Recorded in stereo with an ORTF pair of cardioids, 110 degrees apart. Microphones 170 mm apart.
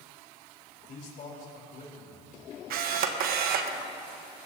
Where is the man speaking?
50° left, 3.5 m.